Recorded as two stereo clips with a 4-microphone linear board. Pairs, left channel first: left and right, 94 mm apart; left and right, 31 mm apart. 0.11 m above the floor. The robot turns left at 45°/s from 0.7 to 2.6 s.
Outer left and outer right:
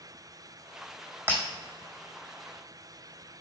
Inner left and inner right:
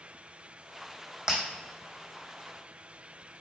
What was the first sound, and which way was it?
Breaking glass, 25° right (ahead or behind).